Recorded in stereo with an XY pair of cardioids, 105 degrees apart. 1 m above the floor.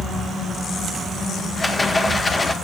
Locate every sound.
1.6 s a rattle: 20° left, 1.7 m